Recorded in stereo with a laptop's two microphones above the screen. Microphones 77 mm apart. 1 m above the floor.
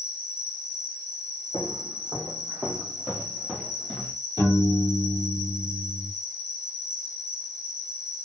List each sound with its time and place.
0.0 s an insect: 40° left (ahead or behind), 1.7 m
1.5 s footsteps: 55° right (ahead or behind), 2 m; by 4.2 s 25° left (ahead or behind), 1.1 m
4.4 s a piano: 60° right (ahead or behind), 1.9 m